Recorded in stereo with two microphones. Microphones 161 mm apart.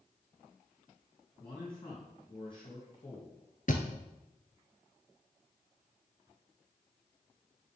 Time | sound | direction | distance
1.4 | a man speaking | 35° left (ahead or behind) | 3 m
3.7 | a thud | 60° left (ahead or behind) | 1.1 m